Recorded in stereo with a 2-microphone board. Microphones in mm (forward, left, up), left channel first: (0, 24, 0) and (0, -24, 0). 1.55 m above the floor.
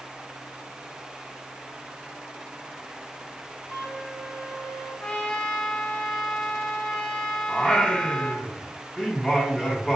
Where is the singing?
20° left (ahead or behind), 1.0 m.